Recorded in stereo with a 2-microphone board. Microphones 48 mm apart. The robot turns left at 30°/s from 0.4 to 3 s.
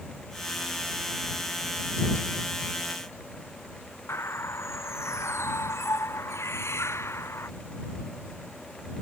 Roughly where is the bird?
Left.